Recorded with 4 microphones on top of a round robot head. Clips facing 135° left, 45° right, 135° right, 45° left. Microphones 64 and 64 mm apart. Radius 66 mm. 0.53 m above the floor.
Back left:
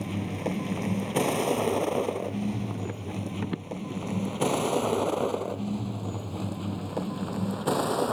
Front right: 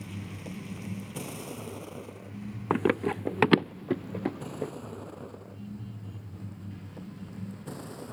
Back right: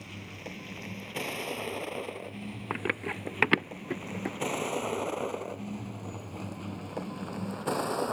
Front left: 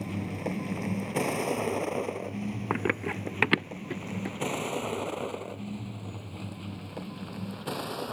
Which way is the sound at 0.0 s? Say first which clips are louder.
Back left 10 dB, front left 10 dB; 100° left.